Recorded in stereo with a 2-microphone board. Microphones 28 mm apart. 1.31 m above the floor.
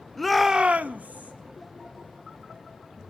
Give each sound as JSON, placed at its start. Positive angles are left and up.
{"t": 0.2, "sound": "a shout", "side_deg": 10, "distance_m": 0.6}